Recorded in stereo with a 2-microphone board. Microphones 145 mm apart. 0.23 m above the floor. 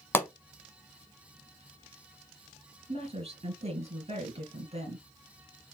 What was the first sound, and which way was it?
A pop, 15° left (ahead or behind).